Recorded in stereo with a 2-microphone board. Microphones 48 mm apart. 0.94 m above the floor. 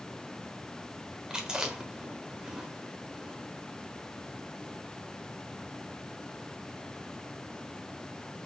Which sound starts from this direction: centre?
Chewing, at 1.3 s.